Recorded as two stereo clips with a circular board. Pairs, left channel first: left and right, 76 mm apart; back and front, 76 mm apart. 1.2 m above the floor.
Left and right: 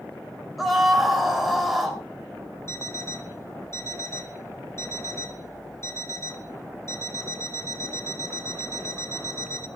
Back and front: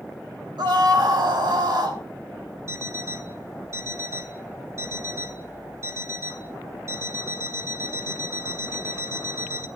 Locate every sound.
0.6 s a scream: straight ahead, 3.5 m
2.7 s an alarm clock: 45° left, 1.3 m